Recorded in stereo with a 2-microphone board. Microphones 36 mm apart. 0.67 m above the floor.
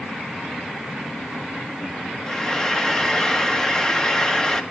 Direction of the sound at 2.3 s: 20° left (ahead or behind).